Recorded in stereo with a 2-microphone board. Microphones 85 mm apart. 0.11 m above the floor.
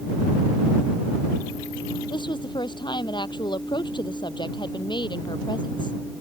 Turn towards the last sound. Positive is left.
turn(degrees=60)  # may be behind; listen again after turning